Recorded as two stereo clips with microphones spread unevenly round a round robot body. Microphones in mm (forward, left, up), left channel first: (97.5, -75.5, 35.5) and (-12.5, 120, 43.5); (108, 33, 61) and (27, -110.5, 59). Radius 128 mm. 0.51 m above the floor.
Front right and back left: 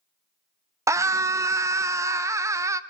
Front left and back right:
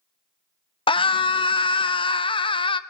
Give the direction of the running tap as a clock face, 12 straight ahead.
I don't hear a running tap.